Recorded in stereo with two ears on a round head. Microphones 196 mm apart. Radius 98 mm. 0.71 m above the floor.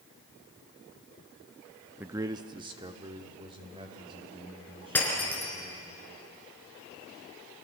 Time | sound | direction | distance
2.0 | a man speaking | 5° right (ahead or behind) | 0.5 m
5.0 | breaking glass | 10° left (ahead or behind) | 5 m